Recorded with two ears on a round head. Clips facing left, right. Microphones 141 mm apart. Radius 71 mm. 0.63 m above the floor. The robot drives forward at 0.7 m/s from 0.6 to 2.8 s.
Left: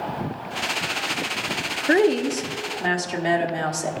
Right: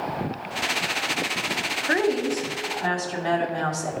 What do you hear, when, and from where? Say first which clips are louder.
1.9 s a woman speaking: left 4 dB; 35° left (ahead or behind), 0.7 m; by 3.9 s 20° left (ahead or behind), 1.1 m